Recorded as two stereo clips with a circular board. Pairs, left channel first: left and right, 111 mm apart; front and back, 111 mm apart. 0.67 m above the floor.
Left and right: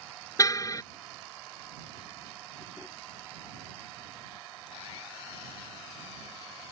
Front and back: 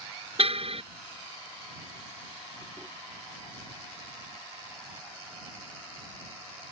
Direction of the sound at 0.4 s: 150° left.